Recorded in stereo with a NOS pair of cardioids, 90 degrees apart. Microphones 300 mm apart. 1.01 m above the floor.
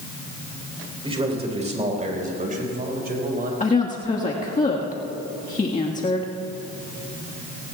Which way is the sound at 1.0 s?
20° right.